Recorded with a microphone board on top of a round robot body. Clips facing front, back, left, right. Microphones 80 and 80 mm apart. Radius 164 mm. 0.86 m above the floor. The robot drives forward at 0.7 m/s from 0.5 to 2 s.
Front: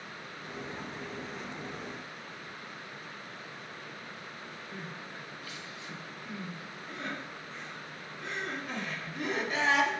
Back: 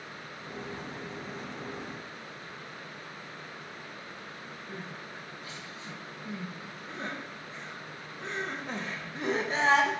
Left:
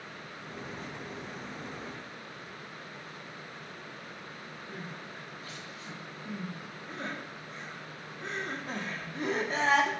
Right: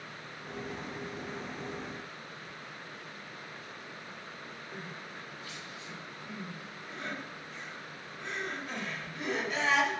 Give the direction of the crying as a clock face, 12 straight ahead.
8 o'clock.